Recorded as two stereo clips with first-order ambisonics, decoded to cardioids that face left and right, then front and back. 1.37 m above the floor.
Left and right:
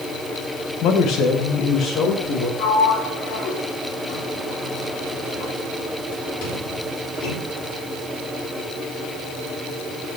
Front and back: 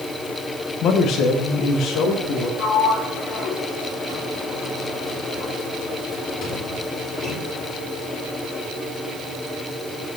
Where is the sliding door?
65° left, 2.5 m.